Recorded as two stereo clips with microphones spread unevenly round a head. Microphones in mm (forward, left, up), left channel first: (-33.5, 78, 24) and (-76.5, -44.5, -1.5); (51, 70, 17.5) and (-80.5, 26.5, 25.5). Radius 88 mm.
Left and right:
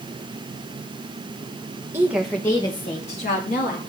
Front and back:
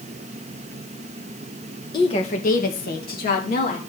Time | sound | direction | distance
1.9 | a woman speaking | 40° right | 1.2 m